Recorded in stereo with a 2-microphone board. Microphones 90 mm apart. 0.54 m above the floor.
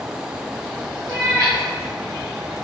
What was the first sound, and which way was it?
A cat meowing, 50° right (ahead or behind).